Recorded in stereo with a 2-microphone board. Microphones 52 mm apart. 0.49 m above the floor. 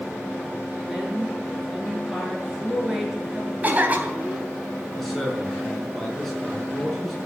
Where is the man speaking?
5° left (ahead or behind), 6 m.